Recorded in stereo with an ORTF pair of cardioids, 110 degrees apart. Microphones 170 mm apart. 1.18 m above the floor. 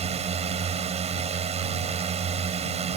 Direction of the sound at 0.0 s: 40° right.